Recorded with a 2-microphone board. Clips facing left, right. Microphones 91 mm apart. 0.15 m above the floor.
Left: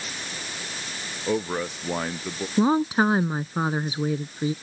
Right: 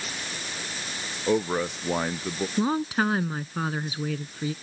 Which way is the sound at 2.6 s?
25° left (ahead or behind).